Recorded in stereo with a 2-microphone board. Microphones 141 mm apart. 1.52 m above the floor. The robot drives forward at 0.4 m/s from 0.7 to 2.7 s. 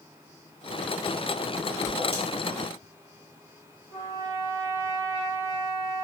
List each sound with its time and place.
1.9 s a whoosh: 40° left (ahead or behind), 2 m
3.9 s a trumpet: 35° left (ahead or behind), 2 m